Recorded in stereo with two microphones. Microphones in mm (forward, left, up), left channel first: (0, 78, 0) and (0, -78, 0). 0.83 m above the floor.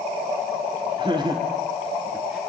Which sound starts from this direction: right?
Laughter, at 1.0 s.